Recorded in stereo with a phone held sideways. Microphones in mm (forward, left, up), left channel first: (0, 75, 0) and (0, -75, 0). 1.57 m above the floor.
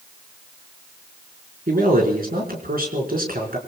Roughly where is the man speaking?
Right.